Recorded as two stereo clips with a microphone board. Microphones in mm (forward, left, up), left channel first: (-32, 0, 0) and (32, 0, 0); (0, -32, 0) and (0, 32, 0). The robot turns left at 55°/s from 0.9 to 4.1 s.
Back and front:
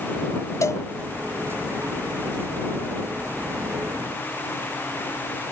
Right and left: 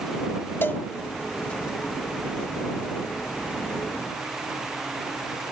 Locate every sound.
0.6 s a cowbell: 145° right